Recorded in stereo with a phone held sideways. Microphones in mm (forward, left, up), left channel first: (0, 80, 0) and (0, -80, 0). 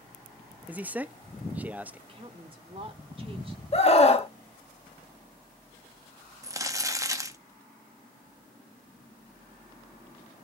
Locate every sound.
0.7 s a man speaking: 10° right (ahead or behind), 0.8 m
2.1 s a woman speaking: 35° right (ahead or behind), 2.5 m
3.7 s a scream: 40° left (ahead or behind), 1.4 m
6.4 s crumpling: 20° right (ahead or behind), 1.2 m